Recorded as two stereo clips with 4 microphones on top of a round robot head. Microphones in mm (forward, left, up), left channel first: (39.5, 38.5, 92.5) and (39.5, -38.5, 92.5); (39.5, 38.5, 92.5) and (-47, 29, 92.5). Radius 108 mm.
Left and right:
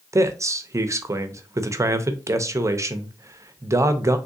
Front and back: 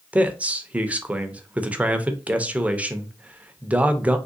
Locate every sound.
0.1 s a man speaking: 110° right, 0.6 m